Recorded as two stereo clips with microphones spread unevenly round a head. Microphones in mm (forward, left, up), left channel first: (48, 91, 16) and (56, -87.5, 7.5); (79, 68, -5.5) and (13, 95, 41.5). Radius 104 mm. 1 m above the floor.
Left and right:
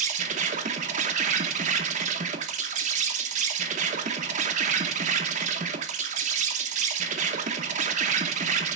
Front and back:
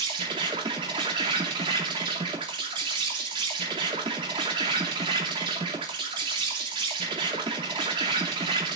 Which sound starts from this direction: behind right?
An insect, at 0.0 s.